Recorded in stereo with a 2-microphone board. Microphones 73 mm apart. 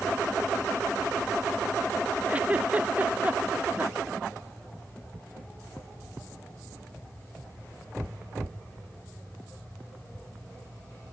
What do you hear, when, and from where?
2.3 s a giggle: 20° right (ahead or behind)